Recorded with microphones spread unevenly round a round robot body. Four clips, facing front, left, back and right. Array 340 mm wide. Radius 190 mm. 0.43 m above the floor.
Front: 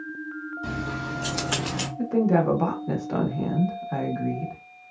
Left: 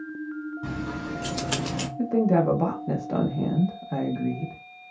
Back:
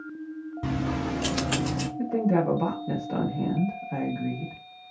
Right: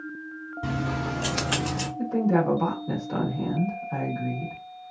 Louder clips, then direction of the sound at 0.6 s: Right 7 dB, back 4 dB; 135° right.